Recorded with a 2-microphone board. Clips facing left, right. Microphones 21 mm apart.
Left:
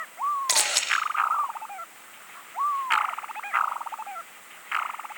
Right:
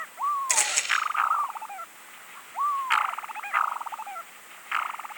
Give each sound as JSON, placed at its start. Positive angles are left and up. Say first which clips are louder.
{"t": 0.5, "sound": "a camera shutter", "louder": "left 2 dB", "side_deg": 60, "distance_m": 7.5}